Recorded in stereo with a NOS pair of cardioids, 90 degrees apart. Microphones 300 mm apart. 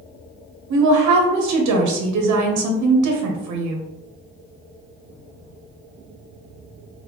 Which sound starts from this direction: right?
A woman speaking, at 0.7 s.